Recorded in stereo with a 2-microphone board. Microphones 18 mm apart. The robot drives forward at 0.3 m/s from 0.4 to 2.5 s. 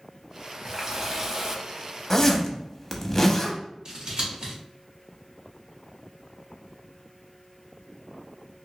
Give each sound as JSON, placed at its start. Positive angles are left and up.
{"t": 0.7, "sound": "a running tap", "side_deg": -30, "distance_m": 0.8}
{"t": 2.1, "sound": "a zipper", "side_deg": 20, "distance_m": 0.5}
{"t": 3.9, "sound": "scissors", "side_deg": -45, "distance_m": 1.7}